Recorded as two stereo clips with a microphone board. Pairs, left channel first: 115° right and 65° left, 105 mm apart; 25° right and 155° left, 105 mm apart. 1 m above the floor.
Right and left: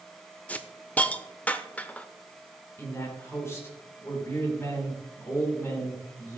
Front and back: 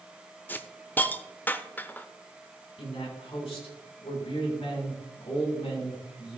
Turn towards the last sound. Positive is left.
turn(degrees=-50)